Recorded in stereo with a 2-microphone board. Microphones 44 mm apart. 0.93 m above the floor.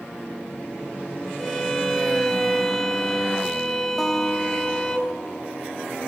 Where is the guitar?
5° left (ahead or behind), 1.4 m.